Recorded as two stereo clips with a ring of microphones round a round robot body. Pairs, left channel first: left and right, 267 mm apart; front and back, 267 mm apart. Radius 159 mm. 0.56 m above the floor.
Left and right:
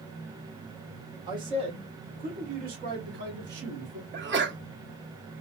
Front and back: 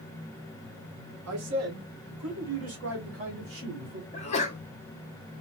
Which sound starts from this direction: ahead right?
A sneeze, at 4.1 s.